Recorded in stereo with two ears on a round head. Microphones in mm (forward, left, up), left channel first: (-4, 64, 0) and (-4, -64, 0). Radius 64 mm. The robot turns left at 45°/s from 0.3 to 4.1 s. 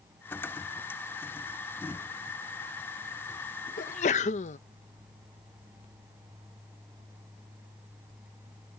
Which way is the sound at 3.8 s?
60° left (ahead or behind).